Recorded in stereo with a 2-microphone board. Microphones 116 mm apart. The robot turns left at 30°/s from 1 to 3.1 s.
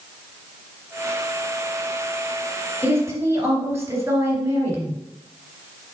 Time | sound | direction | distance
2.8 | a woman speaking | 20° right (ahead or behind) | 2.5 m